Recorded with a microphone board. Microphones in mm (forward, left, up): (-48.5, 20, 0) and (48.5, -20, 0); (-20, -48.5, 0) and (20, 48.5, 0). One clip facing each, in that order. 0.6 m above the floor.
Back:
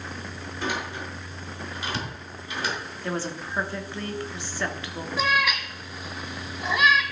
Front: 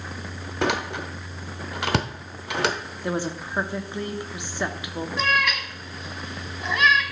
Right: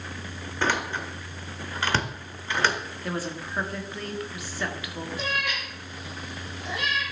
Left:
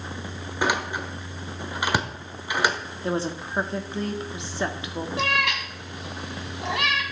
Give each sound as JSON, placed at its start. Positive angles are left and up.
{"t": 0.6, "sound": "a door slam", "azimuth_deg": -10, "distance_m": 1.1}
{"t": 3.0, "sound": "a woman speaking", "azimuth_deg": 35, "distance_m": 1.0}
{"t": 5.2, "sound": "a cat meowing", "azimuth_deg": 75, "distance_m": 1.4}